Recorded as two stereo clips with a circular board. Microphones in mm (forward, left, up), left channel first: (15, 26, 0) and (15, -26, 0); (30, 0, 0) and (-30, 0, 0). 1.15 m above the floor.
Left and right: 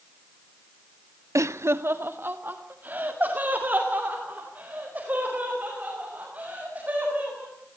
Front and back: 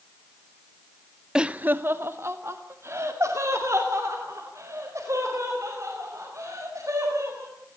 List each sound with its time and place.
1.4 s laughter: 100° right, 0.5 m; by 7.5 s 150° right, 7.5 m